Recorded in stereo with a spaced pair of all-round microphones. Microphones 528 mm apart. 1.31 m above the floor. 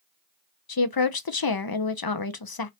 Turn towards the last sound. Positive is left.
turn(degrees=45)  # may be behind; listen again after turning